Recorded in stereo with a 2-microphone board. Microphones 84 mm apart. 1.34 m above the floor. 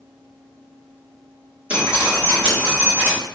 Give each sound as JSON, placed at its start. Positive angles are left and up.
{"t": 1.7, "sound": "dripping", "side_deg": -15, "distance_m": 3.5}